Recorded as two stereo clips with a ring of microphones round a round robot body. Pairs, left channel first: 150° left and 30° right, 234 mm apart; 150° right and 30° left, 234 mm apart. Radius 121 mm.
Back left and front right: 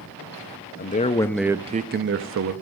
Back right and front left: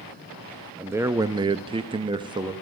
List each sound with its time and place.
0.8 s a man speaking: 110° left, 0.7 m; by 2.5 s 40° right, 0.8 m